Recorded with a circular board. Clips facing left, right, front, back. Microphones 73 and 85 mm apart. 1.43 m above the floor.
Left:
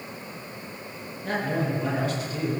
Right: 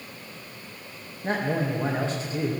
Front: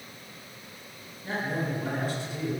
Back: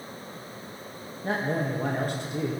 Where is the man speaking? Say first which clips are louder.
Right 1 dB, back 3 dB; 145° right, 1.7 m.